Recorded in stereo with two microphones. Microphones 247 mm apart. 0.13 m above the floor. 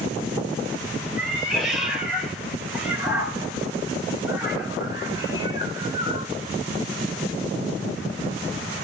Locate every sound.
1.2 s a cat meowing: centre (ahead or behind), 8 m; by 6.3 s 20° right (ahead or behind), 6.5 m